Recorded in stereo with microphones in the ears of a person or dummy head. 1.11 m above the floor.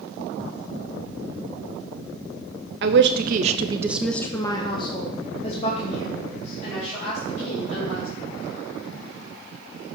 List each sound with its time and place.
2.8 s a woman speaking: 60° right (ahead or behind), 0.8 m; by 8.1 s 45° left (ahead or behind), 3 m